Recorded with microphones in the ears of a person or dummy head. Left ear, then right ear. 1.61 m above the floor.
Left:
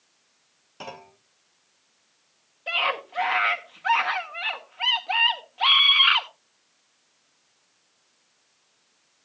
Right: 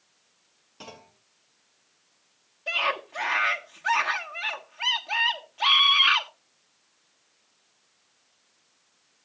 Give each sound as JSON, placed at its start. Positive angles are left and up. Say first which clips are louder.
{"t": 0.8, "sound": "a clunk", "louder": "left 6 dB", "side_deg": 30, "distance_m": 0.7}
{"t": 2.7, "sound": "a scream", "louder": "left 1 dB", "side_deg": 10, "distance_m": 1.2}